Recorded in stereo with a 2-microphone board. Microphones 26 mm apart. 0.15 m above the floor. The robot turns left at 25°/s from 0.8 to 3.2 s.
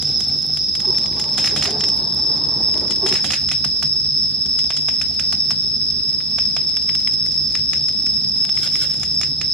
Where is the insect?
Straight behind, 3 m; by 9.5 s 120° left, 3 m.